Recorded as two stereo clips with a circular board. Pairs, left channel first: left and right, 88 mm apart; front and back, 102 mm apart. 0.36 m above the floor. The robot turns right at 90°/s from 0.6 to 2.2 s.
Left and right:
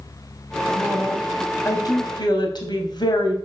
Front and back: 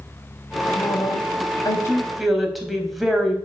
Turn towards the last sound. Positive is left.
turn(degrees=90)